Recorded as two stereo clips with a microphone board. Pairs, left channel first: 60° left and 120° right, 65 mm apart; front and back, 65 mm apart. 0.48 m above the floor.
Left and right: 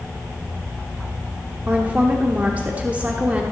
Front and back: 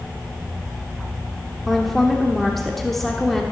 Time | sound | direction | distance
1.7 | a woman speaking | 85° right | 1.0 m